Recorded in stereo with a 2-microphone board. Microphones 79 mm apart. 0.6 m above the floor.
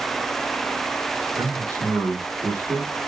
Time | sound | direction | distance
1.4 | a man speaking | 35° right (ahead or behind) | 0.9 m